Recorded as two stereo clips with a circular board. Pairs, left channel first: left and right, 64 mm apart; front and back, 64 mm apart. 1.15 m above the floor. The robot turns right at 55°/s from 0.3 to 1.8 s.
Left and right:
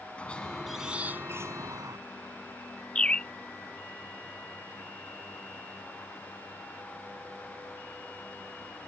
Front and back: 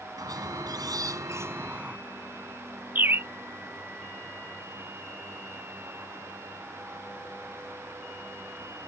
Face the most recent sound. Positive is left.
turn(degrees=155)